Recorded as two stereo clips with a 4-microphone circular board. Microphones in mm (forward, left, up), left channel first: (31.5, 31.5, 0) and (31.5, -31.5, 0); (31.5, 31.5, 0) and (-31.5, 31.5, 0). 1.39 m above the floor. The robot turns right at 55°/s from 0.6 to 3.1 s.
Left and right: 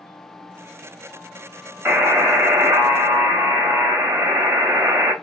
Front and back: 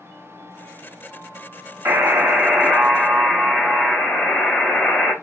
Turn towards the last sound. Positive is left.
turn(degrees=-65)